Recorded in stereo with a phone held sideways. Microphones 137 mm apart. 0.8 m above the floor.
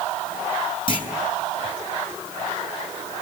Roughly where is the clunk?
Left.